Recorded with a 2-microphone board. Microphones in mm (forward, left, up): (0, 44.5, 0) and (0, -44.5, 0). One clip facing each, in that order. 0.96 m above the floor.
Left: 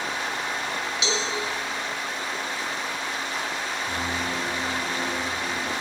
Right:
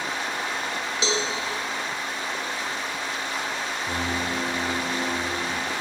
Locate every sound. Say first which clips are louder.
1.0 s a cowbell: right 3 dB; 35° right (ahead or behind), 1.5 m
3.9 s a piano: right 2 dB; 45° right (ahead or behind), 1.3 m